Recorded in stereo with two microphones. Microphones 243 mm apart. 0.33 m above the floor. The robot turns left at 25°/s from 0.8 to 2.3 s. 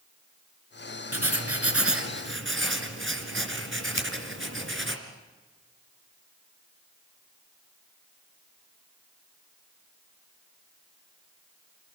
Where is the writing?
80° right, 2.5 m; by 5.0 s 55° right (ahead or behind), 2.5 m.